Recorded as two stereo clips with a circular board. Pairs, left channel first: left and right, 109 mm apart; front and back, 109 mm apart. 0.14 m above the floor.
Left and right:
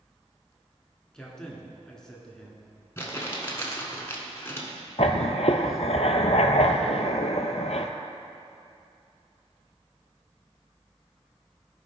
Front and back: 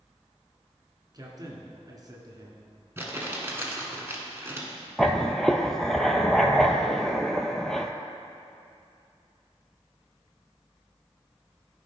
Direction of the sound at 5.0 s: 85° left.